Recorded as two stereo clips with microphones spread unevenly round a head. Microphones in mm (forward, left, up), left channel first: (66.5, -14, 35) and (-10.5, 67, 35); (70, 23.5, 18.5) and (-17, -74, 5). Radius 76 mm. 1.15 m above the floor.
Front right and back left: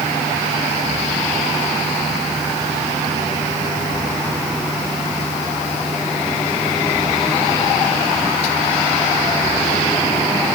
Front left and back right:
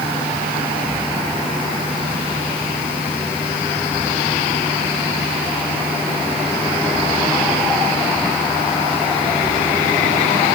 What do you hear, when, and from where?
Only background noise.